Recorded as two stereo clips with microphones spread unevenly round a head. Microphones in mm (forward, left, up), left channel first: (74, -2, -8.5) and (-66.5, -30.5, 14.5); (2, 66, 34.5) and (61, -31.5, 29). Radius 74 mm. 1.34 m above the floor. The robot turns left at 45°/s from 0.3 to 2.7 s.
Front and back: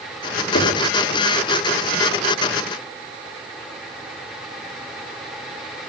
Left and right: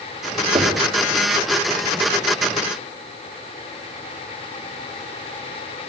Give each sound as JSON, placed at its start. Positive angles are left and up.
{"t": 0.6, "sound": "knocking", "azimuth_deg": -15, "distance_m": 3.5}